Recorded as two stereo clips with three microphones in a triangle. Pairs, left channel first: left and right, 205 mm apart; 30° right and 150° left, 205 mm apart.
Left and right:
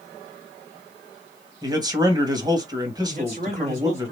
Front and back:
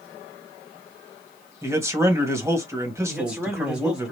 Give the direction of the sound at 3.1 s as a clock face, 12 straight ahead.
4 o'clock.